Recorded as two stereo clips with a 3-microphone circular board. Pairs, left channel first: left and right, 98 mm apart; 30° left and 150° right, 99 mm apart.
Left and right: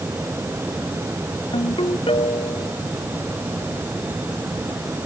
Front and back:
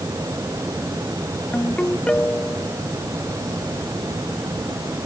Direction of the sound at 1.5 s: 110° left.